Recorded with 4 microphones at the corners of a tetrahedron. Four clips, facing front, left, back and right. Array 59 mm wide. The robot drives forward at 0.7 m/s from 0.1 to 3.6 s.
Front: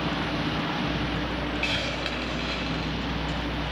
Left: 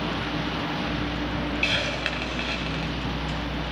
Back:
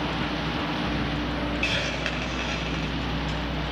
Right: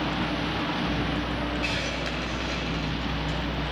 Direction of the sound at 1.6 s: 95° left.